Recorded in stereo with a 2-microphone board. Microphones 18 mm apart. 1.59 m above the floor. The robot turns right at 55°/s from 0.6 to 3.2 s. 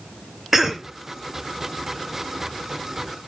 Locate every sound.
0.5 s a cough: 15° right (ahead or behind), 0.7 m; by 0.9 s 30° right (ahead or behind), 0.7 m